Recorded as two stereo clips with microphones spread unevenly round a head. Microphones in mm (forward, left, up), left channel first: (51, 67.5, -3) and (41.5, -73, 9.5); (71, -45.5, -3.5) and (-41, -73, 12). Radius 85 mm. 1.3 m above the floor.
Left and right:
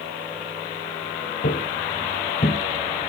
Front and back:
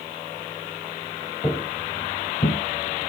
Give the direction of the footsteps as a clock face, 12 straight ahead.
9 o'clock.